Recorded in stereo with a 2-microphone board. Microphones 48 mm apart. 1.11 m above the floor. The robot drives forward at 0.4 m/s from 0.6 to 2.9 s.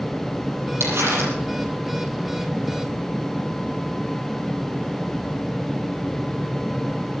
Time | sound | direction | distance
0.8 | crumpling | 65° right (ahead or behind) | 7.5 m